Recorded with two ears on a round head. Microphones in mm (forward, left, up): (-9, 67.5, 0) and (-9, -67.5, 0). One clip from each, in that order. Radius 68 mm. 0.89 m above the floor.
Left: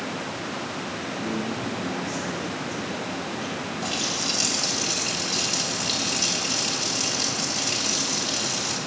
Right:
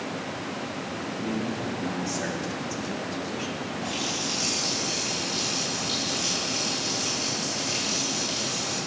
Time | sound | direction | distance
1.2 | a man speaking | 60° right (ahead or behind) | 2.5 m
3.8 | a running tap | 50° left (ahead or behind) | 2.5 m